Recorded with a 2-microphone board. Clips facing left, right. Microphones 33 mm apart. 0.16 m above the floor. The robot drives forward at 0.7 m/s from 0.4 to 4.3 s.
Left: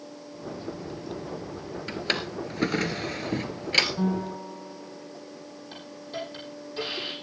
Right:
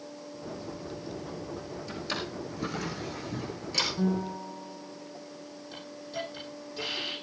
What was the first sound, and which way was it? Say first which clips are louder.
A drawer: left 6 dB; 55° left (ahead or behind).